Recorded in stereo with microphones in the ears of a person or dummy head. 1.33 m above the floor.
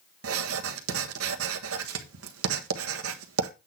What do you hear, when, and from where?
0.2 s writing: 80° right, 1.3 m